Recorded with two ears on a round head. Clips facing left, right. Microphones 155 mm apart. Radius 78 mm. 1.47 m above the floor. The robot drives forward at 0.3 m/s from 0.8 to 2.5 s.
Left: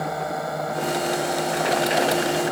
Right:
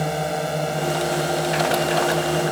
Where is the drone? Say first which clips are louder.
Right 3 dB; 30° right (ahead or behind).